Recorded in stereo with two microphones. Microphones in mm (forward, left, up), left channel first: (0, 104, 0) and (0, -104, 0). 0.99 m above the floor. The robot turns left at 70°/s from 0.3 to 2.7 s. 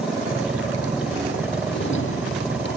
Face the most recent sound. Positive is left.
turn(degrees=55)